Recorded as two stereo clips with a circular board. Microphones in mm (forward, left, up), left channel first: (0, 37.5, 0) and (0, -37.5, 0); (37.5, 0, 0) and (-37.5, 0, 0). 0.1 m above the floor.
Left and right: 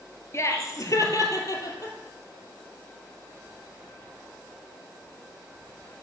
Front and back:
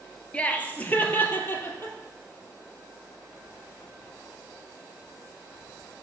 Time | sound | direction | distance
0.3 | laughter | 65° left | 1.5 m